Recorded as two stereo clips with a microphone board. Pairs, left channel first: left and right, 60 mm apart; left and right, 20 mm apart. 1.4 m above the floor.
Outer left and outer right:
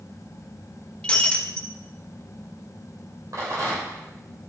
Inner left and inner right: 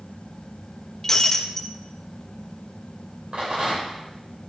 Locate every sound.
1.0 s breaking glass: 15° left (ahead or behind), 0.8 m
3.3 s a rattle: 65° right (ahead or behind), 3 m